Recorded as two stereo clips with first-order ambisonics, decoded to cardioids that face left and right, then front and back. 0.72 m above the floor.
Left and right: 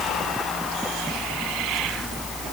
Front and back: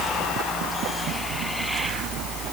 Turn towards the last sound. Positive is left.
No sound to turn to.